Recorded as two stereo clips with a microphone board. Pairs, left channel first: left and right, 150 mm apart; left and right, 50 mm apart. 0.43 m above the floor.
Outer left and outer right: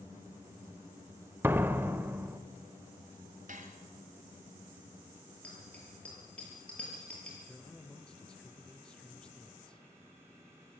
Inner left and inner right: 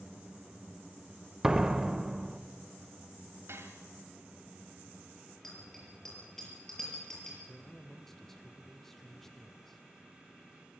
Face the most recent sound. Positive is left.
turn(degrees=5)  # may be behind; listen again after turning